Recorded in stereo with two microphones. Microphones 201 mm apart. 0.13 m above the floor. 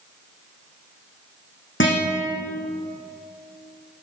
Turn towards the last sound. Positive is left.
turn(degrees=75)  # may be behind; listen again after turning